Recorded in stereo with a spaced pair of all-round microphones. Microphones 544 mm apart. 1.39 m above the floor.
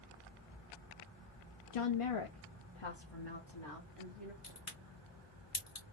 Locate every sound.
1.7 s a woman speaking: 75° left (ahead or behind), 0.5 m; by 4.3 s 50° left (ahead or behind), 1.8 m
4.4 s a crack: 70° left (ahead or behind), 1.9 m